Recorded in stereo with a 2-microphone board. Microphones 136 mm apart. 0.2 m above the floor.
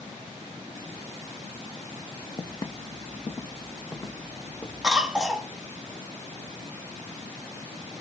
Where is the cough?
5° right (ahead or behind), 1.1 m.